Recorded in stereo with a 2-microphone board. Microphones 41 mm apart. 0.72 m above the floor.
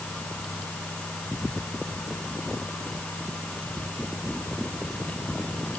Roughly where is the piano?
I don't hear a piano.